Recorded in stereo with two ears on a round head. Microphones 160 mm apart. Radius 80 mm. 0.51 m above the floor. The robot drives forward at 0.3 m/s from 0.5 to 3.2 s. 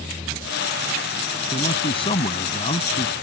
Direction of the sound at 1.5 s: 30° left (ahead or behind).